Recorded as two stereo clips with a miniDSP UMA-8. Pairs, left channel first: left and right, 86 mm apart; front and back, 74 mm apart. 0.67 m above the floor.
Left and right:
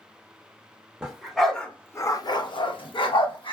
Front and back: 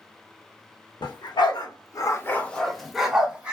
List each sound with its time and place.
1.0 s a dog barking: 10° right, 0.8 m; by 3.5 s 110° left, 0.9 m